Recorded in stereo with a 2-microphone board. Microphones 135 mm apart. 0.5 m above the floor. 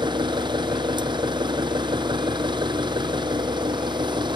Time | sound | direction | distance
0.0 | an engine running | 35° right (ahead or behind) | ?